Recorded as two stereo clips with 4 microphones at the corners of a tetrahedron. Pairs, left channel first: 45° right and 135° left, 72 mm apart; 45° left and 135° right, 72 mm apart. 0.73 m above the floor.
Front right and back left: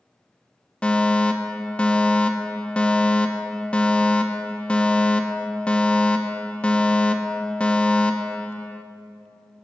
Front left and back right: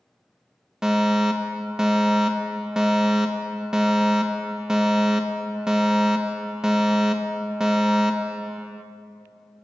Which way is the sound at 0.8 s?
70° right.